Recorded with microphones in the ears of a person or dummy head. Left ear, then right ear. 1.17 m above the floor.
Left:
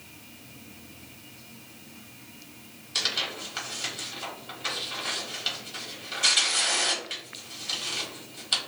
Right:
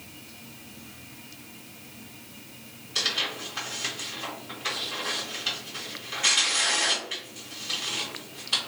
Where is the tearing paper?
55° left (ahead or behind), 1.5 m.